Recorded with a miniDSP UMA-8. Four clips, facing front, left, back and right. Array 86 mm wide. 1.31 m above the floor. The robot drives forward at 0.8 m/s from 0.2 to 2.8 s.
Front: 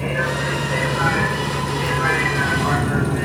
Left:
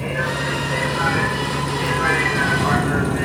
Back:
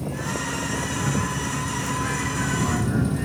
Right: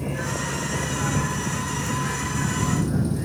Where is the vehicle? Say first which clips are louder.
Left 5 dB, front 7 dB; 30° left; by 3.2 s 60° left.